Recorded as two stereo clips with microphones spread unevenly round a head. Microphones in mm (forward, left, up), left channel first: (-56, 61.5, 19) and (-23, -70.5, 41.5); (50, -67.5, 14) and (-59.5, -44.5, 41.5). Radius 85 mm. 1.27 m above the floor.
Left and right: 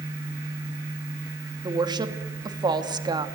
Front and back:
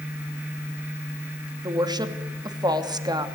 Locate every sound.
1.6 s a woman speaking: 135° right, 2.5 m